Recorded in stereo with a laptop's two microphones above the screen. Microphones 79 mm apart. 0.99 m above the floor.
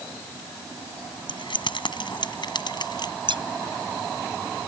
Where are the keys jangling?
75° left (ahead or behind); by 3.1 s 60° left (ahead or behind).